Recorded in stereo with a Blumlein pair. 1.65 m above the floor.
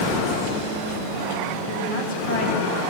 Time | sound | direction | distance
1.7 | a woman speaking | 50° left | 10 m